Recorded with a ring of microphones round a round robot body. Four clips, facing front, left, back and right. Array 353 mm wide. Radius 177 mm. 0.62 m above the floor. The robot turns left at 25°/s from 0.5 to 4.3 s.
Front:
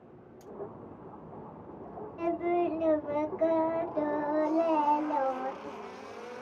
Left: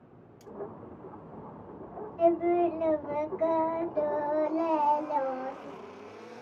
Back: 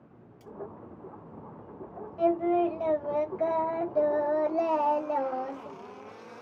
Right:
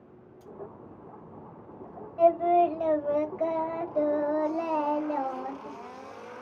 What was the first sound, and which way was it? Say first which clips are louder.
Cutlery clinking: left 1 dB, back 1 dB; 75° left.